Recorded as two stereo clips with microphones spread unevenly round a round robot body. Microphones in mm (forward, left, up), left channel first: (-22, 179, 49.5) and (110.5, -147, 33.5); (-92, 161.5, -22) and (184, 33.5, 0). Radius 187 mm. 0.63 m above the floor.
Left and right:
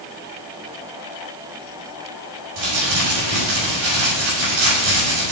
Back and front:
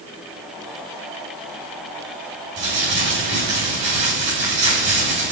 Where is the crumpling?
80° right, 5 m.